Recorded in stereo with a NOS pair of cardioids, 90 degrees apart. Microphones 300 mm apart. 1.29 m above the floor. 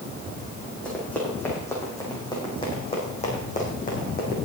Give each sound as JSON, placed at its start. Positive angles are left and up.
{"t": 0.8, "sound": "running footsteps", "azimuth_deg": 5, "distance_m": 4.0}